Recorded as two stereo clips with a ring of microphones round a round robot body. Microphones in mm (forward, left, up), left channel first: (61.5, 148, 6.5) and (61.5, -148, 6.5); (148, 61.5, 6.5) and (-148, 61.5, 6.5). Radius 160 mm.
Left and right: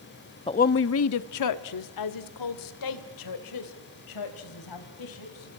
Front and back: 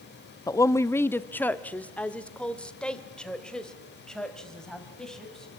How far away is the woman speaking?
About 0.5 m.